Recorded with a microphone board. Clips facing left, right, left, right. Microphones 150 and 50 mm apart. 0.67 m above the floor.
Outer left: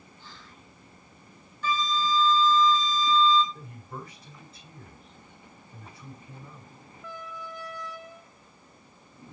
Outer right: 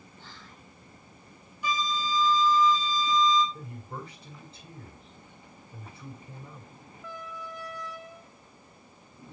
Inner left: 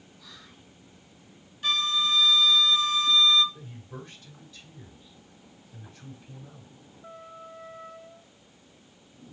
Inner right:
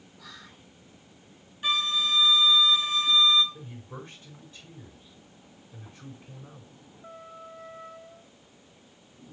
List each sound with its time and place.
0.2 s whispering: 55° right (ahead or behind), 2.5 m
1.6 s a flute: 15° right (ahead or behind), 1.4 m
3.5 s a man speaking: 30° right (ahead or behind), 6 m